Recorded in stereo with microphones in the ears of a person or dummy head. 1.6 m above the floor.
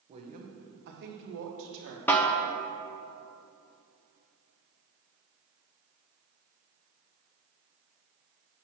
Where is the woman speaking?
25° right (ahead or behind), 1.0 m; by 2.0 s 70° right (ahead or behind), 1.4 m.